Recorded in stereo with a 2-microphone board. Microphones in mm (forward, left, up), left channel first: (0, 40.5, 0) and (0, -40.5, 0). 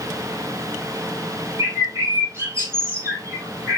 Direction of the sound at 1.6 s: 35° right (ahead or behind).